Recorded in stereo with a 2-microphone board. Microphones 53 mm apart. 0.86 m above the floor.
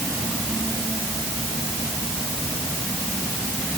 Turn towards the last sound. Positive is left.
No sound to turn to.